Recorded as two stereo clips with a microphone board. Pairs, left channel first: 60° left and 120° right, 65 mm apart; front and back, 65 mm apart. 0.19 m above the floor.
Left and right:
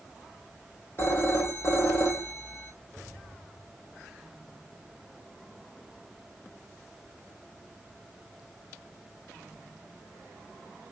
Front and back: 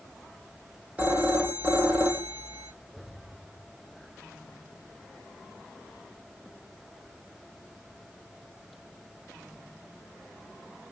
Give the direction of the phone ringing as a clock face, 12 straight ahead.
8 o'clock.